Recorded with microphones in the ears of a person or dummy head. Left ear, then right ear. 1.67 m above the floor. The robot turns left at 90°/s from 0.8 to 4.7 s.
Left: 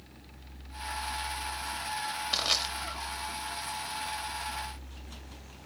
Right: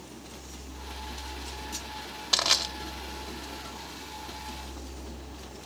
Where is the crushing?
30° right (ahead or behind), 0.7 m; by 2.7 s centre (ahead or behind), 0.7 m.